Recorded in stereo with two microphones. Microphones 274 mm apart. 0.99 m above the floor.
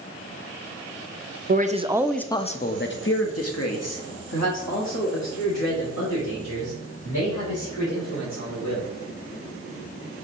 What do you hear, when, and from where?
1.5 s a man speaking: 35° right (ahead or behind), 0.6 m; by 8.9 s 85° left, 3.5 m